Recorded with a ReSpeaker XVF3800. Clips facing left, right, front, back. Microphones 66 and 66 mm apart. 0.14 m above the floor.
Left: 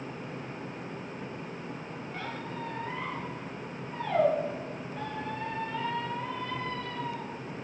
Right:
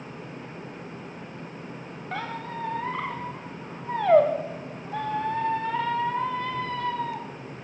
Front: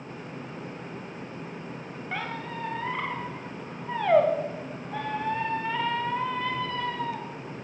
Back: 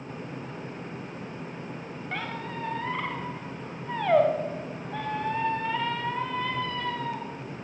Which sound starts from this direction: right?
A squeak, at 2.1 s.